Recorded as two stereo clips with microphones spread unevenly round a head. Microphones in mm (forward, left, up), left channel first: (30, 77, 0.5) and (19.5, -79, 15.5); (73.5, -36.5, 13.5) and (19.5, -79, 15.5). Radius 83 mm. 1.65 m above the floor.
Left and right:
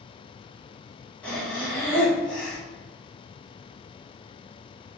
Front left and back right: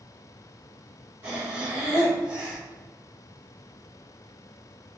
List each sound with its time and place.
1.2 s breathing: 170° left, 1.1 m